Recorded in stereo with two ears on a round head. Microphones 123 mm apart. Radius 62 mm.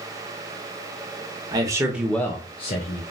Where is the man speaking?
30° right (ahead or behind), 0.8 m; by 3.0 s 60° left (ahead or behind), 0.7 m.